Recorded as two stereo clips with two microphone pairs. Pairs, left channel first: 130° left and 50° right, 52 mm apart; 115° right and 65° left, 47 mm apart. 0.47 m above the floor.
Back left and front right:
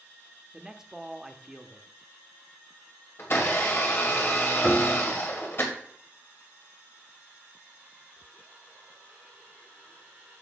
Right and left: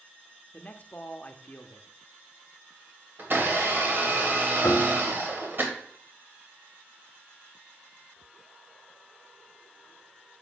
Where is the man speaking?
125° right, 0.8 m.